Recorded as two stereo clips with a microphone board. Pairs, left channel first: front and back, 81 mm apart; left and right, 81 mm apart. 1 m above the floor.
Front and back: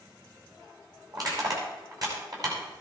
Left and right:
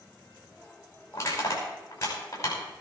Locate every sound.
1.1 s crushing: 145° left, 5.5 m